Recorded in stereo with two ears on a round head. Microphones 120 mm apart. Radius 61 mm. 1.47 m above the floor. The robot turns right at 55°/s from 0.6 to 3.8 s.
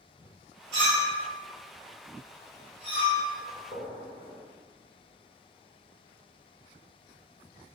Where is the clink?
50° right (ahead or behind), 1.6 m; by 3.2 s 15° left (ahead or behind), 1.6 m.